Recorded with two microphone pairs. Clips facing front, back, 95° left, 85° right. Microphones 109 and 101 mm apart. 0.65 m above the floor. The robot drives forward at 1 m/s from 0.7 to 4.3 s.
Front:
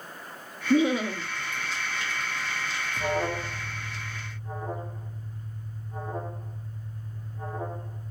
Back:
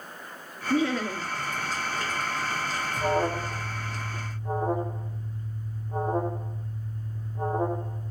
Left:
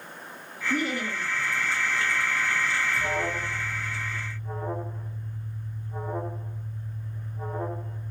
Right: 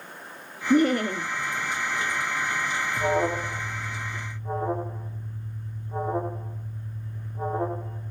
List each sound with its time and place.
0.7 s laughter: 60° right, 1.0 m; by 1.3 s 105° right, 1.0 m
3.0 s an alarm: 100° right, 2 m; by 8.1 s 140° right, 2.5 m